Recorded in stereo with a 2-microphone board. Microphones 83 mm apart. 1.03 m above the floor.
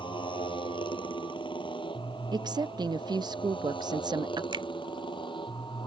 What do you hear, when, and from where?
0.0 s a motorcycle: 90° left; by 5.9 s 80° left
2.3 s a woman speaking: 60° right (ahead or behind)
4.5 s a finger snap: 75° right (ahead or behind)